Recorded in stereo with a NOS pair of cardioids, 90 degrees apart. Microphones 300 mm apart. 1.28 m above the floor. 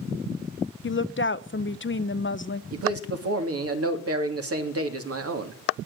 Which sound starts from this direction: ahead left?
A woman speaking, at 0.8 s.